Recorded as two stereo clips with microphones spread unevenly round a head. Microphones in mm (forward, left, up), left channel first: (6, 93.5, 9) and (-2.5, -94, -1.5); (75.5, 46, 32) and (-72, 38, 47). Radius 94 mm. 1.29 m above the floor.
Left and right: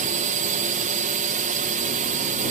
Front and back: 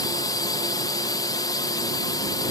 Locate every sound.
0.0 s a drone: 55° right